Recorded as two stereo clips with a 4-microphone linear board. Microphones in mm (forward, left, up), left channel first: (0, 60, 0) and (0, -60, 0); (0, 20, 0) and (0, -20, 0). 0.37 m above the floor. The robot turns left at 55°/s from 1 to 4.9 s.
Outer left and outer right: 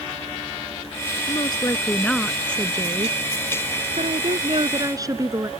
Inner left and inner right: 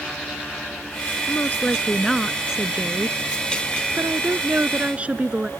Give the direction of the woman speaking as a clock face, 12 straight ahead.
10 o'clock.